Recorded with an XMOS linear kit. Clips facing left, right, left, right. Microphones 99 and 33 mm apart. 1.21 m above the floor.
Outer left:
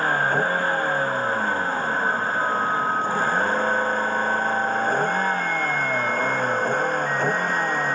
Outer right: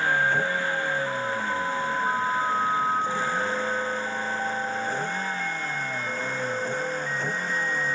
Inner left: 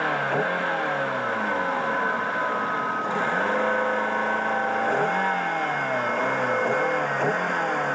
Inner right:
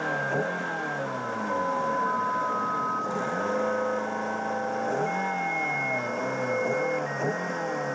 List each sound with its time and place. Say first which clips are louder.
0.0 s a vehicle: outer left 2 dB, inner left 4 dB; 50° left (ahead or behind); by 8.0 s 60° left (ahead or behind)